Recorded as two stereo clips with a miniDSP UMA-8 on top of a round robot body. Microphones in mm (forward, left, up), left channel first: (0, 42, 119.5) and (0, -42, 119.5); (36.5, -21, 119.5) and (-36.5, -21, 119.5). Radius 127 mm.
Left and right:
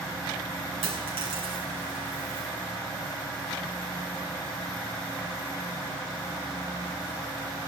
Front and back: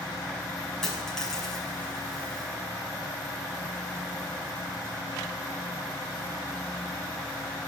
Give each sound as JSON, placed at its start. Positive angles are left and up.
{"t": 0.8, "sound": "a dropped coin", "azimuth_deg": -85, "distance_m": 5.0}